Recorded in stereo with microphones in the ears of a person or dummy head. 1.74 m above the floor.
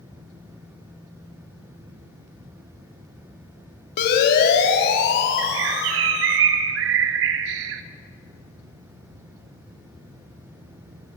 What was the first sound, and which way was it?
A siren, 55° left (ahead or behind).